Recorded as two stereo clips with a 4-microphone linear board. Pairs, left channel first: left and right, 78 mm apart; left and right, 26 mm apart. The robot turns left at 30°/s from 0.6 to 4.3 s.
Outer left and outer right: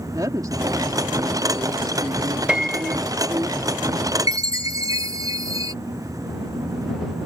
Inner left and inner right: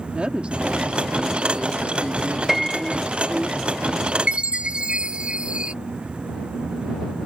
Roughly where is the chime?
Right.